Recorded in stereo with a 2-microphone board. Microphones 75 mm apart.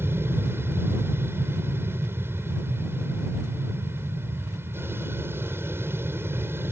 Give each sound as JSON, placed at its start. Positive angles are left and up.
{"t": 0.0, "sound": "an aircraft", "side_deg": -30}